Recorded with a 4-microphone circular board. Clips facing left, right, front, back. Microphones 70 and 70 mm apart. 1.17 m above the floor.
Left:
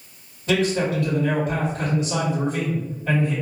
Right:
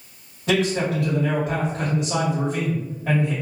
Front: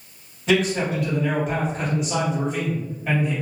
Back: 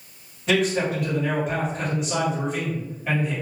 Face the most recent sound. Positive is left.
turn(degrees=-90)